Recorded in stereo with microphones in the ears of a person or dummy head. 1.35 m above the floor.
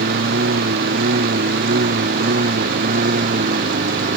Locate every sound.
0.0 s a lawn mower: 50° right (ahead or behind); by 4.2 s 45° right (ahead or behind)